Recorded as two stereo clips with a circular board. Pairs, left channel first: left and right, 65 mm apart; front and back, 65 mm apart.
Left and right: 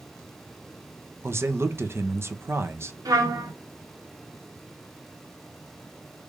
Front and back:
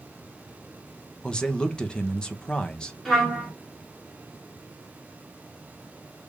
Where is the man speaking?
70° right, 0.6 m.